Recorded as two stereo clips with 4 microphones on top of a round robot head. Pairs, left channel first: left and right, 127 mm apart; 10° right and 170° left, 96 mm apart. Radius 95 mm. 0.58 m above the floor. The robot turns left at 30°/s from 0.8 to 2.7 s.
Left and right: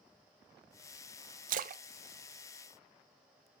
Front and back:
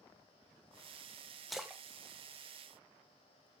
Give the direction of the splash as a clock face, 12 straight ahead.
3 o'clock.